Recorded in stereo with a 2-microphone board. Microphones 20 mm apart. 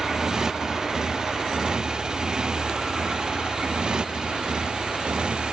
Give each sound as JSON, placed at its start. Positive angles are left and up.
{"t": 0.0, "sound": "a motorcycle", "side_deg": -30}